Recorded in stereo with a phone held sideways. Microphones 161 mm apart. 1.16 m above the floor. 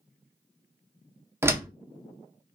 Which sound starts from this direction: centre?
A door slam, at 1.4 s.